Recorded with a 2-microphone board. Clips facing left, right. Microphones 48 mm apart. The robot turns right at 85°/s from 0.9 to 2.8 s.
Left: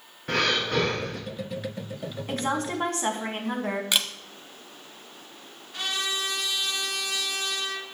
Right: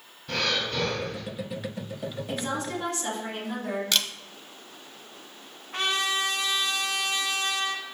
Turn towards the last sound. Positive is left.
turn(degrees=-55)  # may be behind; listen again after turning